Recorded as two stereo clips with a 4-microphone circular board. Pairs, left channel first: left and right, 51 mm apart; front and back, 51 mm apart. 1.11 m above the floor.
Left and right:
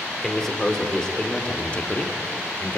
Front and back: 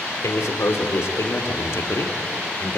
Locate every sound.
0.2 s a man speaking: 5° left, 3 m; by 2.8 s 40° left, 2 m